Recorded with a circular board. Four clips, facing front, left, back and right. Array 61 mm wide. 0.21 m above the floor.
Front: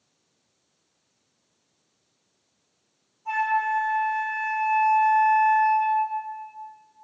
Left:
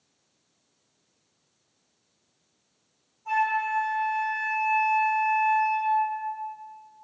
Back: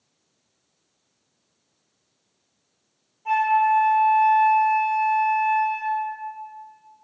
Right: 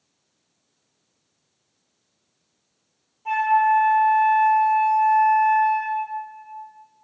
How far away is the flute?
About 2 m.